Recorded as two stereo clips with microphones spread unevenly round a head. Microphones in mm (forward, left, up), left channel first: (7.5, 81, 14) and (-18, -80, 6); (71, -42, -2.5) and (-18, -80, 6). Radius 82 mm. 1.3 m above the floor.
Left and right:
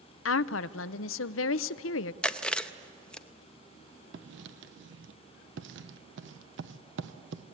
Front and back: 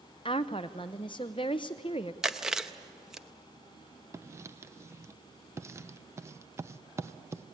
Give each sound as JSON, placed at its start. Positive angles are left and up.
{"t": 0.2, "sound": "a woman speaking", "azimuth_deg": 85, "distance_m": 0.5}
{"t": 2.2, "sound": "chewing", "azimuth_deg": 145, "distance_m": 0.5}
{"t": 4.1, "sound": "writing", "azimuth_deg": -90, "distance_m": 0.9}